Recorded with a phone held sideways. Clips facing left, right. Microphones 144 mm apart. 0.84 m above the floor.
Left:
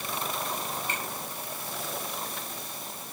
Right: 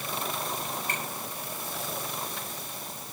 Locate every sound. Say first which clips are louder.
0.9 s a finger snap: even; 45° right (ahead or behind), 6.5 m